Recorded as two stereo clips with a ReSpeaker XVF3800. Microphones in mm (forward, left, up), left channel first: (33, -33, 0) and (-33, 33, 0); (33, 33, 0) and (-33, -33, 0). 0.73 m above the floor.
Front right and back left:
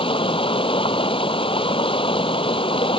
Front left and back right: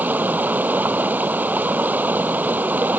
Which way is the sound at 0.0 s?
65° right.